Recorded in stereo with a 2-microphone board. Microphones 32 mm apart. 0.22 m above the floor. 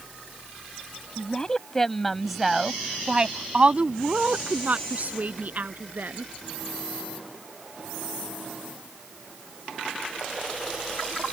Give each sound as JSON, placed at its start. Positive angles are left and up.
{"t": 1.2, "sound": "a woman speaking", "side_deg": 30}